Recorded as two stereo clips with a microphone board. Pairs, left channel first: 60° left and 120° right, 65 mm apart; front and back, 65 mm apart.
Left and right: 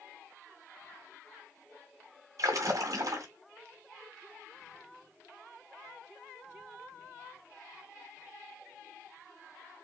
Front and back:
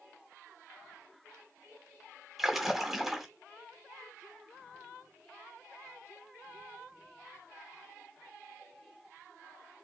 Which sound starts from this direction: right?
A splash, at 2.4 s.